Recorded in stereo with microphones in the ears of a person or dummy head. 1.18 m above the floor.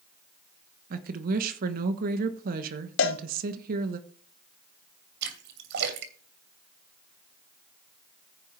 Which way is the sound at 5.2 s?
60° right (ahead or behind).